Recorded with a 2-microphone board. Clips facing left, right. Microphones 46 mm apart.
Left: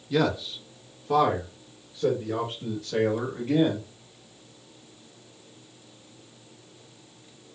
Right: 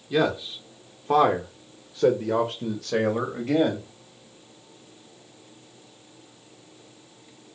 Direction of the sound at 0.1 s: 15° right (ahead or behind).